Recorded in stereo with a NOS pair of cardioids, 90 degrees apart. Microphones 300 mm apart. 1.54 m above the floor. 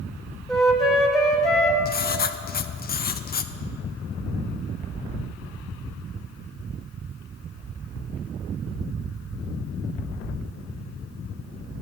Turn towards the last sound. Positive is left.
turn(degrees=30)